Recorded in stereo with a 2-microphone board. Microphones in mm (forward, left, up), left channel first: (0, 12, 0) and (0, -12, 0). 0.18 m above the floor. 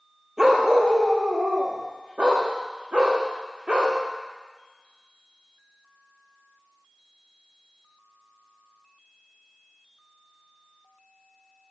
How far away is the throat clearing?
I don't hear throat clearing.